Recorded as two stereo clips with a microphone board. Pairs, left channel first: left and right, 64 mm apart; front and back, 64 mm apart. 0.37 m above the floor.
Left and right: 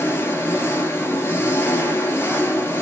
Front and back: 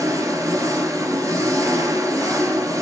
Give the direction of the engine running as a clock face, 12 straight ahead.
7 o'clock.